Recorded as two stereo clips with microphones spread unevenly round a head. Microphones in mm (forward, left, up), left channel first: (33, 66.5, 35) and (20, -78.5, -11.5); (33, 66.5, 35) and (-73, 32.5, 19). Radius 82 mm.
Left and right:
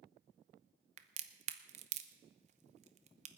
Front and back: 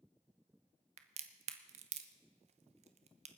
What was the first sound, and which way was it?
A crack, 135° right.